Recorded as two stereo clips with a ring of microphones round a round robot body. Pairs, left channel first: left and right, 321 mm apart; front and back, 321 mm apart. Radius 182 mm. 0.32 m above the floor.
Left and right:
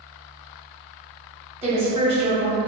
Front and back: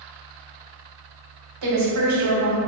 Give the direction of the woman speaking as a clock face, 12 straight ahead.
5 o'clock.